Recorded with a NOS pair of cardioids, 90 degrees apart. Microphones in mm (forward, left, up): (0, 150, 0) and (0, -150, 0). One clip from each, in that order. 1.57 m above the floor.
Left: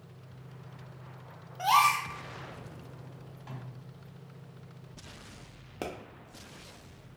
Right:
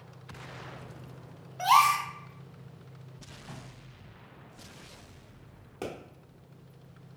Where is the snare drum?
70° left, 1.7 m.